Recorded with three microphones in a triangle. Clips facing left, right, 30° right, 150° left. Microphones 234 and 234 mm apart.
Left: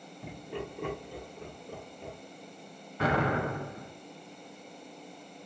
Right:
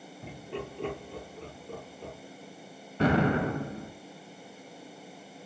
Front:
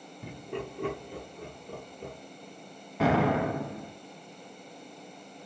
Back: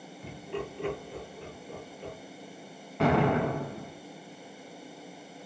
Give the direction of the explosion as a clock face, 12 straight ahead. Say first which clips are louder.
Right 4 dB, even; 4 o'clock.